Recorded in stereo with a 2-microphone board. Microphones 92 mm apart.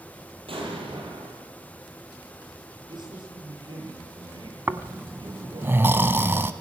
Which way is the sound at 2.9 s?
55° right (ahead or behind).